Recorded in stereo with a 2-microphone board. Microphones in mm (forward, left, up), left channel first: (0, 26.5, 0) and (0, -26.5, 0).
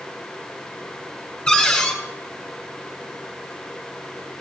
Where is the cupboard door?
10° left (ahead or behind), 2 m.